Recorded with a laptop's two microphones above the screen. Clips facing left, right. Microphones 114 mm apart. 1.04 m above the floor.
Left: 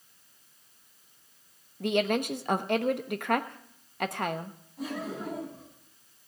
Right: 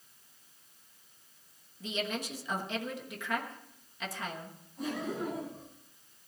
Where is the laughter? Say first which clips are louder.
Even; 5° left (ahead or behind), 9 m.